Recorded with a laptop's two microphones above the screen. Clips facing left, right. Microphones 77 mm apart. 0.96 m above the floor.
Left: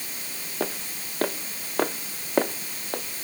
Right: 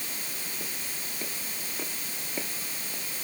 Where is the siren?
No siren in this recording.